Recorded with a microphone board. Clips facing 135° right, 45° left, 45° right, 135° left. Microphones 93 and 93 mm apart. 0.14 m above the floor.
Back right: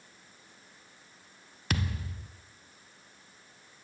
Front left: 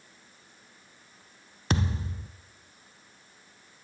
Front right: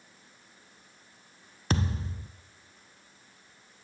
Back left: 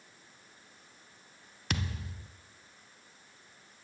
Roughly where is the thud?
Ahead.